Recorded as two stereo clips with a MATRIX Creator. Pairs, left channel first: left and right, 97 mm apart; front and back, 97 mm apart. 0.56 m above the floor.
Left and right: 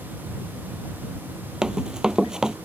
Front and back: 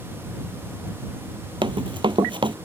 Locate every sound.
1.6 s running footsteps: 170° right